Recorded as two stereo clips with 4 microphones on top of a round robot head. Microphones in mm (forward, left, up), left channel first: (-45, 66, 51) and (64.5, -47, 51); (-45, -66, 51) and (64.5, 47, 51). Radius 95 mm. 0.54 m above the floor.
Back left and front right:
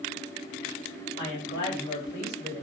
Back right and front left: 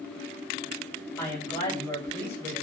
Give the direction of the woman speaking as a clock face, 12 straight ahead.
7 o'clock.